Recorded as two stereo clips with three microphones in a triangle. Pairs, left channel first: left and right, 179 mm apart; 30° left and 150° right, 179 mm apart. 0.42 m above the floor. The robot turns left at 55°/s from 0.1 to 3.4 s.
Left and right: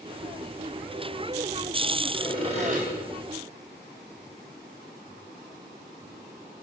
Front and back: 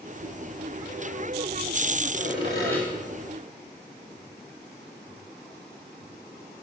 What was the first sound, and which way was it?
Sawing, 15° right.